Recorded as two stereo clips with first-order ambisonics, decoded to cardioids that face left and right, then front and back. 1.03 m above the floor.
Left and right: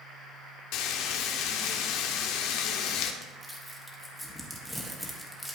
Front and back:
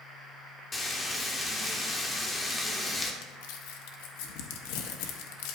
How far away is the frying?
About 1.0 m.